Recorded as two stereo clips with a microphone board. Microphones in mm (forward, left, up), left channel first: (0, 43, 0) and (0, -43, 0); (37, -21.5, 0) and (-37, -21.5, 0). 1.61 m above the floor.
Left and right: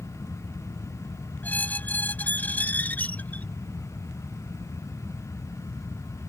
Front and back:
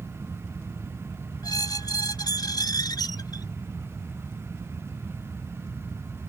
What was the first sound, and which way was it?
A squeak, 20° left.